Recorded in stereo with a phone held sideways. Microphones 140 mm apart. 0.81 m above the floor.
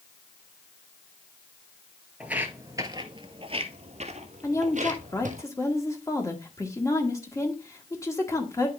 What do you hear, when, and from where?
2.2 s footsteps: 10° right (ahead or behind), 1.0 m; by 5.4 s 65° right (ahead or behind), 1.9 m
4.4 s a woman speaking: 20° left (ahead or behind), 1.6 m